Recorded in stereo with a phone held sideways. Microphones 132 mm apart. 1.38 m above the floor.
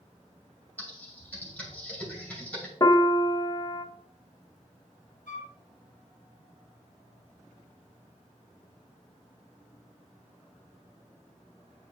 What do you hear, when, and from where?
0.8 s typing on a keyboard: 10° left (ahead or behind), 2.5 m
2.8 s a piano: 30° left (ahead or behind), 0.5 m
5.3 s a flute: 80° left, 1.1 m